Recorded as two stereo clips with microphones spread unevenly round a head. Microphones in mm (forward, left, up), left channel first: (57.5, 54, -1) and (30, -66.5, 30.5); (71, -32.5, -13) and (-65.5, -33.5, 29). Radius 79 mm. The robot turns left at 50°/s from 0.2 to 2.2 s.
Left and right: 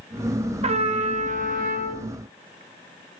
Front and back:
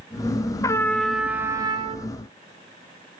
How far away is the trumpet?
About 0.9 m.